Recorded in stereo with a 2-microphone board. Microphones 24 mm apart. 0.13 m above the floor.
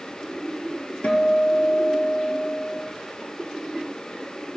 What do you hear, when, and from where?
1.0 s a guitar: 70° left (ahead or behind), 0.5 m